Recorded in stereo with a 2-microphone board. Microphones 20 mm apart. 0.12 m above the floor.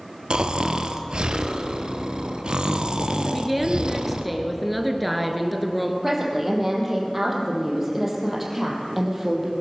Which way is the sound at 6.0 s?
15° right (ahead or behind).